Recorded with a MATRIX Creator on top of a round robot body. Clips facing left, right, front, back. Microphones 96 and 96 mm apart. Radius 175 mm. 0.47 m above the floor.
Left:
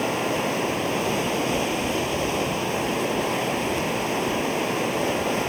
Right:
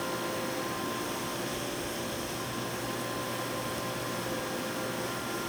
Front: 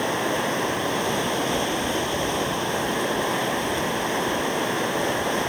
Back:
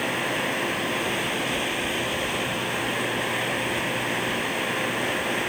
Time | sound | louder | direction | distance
0.0 | running water | left 9 dB, front 3 dB | 70° left | ?